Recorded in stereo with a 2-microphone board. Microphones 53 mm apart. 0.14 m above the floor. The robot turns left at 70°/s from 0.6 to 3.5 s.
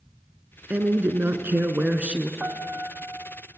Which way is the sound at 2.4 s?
25° right (ahead or behind).